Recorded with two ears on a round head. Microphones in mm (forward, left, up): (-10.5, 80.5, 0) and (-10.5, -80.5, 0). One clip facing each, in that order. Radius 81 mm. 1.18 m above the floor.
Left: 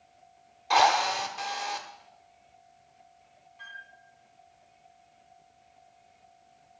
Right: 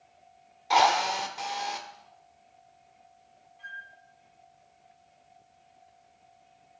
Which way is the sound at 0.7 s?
5° right (ahead or behind).